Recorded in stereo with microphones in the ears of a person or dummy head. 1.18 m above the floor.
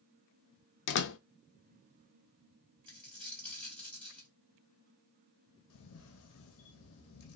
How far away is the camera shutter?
About 0.7 m.